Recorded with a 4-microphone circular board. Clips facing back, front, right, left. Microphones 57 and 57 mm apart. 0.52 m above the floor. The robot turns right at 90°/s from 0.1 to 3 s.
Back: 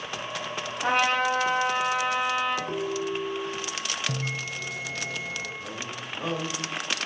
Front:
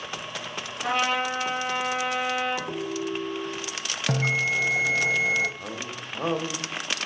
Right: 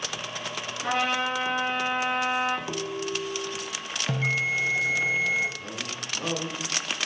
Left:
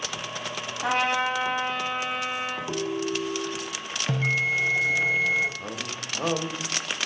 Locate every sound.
0.8 s a trumpet: 110° left, 3.5 m; by 2.6 s 90° right, 3.5 m
2.7 s a ringtone: 60° right, 1.6 m; by 3.7 s 30° right, 1.6 m
4.1 s a bell: straight ahead, 0.6 m
5.6 s a man speaking: 50° left, 0.9 m